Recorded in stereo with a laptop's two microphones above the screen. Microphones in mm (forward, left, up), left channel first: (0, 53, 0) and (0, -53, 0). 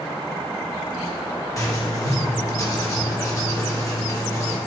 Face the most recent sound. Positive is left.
turn(degrees=30)  # may be behind; listen again after turning